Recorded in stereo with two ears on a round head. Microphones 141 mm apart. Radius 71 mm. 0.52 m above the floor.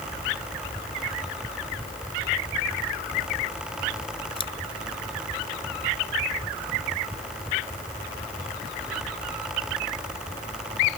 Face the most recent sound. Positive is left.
turn(degrees=35)  # may be behind; listen again after turning